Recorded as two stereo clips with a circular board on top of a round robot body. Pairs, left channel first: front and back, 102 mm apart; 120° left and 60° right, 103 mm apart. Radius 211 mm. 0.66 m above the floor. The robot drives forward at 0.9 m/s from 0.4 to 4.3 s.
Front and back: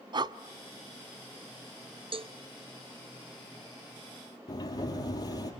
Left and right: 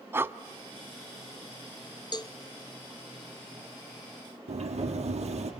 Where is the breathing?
130° right, 0.6 m.